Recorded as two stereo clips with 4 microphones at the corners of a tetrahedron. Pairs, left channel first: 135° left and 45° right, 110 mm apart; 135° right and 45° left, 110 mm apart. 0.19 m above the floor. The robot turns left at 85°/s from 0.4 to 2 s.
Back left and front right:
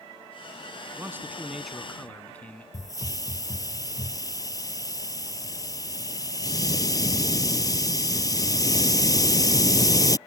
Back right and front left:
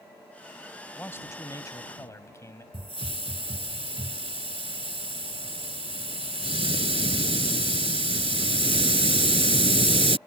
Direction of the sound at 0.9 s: 75° right.